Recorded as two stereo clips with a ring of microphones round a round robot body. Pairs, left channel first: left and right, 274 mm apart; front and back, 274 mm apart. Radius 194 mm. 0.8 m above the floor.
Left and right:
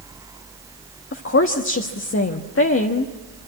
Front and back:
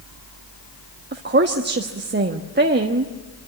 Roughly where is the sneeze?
I don't hear a sneeze.